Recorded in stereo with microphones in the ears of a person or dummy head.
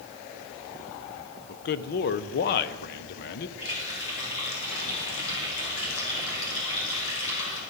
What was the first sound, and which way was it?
A man speaking, 50° left (ahead or behind).